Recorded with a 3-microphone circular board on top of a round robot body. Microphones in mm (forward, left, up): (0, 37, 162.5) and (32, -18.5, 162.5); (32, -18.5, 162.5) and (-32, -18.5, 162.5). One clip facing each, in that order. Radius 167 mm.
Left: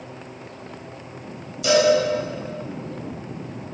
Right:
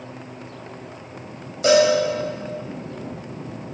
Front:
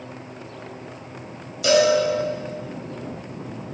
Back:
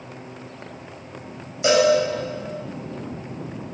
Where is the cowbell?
115° right, 3.5 m.